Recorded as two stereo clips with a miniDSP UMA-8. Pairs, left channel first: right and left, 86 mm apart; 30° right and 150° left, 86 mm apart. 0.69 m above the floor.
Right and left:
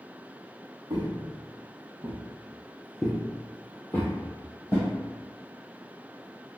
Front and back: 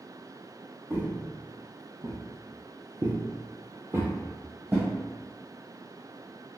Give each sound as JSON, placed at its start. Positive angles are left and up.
{"t": 0.9, "sound": "footsteps", "azimuth_deg": 95, "distance_m": 1.1}